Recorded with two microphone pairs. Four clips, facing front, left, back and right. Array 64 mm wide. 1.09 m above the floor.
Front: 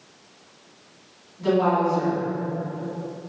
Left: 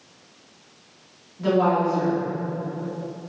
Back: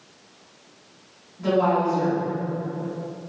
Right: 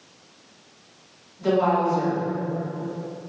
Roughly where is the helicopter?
I don't hear a helicopter.